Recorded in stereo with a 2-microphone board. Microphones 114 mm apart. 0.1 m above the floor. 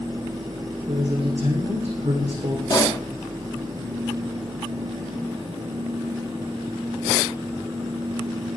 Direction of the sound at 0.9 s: 75° right (ahead or behind).